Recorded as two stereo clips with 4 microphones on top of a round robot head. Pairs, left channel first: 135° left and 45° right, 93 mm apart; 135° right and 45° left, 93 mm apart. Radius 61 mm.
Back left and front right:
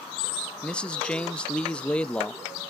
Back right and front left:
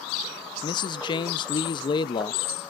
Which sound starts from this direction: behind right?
A man speaking, at 0.6 s.